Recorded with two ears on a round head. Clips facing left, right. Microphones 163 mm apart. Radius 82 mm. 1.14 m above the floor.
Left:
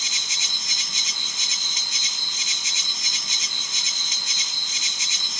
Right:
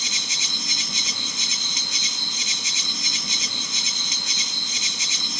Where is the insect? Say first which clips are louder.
Right 4 dB; 65° right (ahead or behind).